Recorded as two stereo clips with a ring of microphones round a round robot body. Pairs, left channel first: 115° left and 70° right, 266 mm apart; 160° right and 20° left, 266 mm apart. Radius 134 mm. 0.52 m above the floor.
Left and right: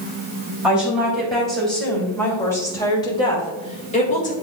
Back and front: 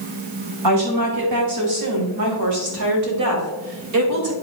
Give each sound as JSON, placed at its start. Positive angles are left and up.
{"t": 0.6, "sound": "a woman speaking", "azimuth_deg": 20, "distance_m": 3.5}